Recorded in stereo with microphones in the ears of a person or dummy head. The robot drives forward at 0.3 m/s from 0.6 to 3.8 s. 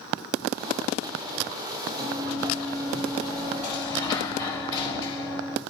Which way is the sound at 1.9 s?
30° right (ahead or behind).